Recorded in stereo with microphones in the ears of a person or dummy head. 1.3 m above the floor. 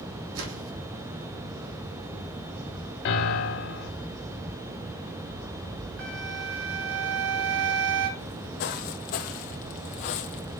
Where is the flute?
75° right (ahead or behind), 6 m.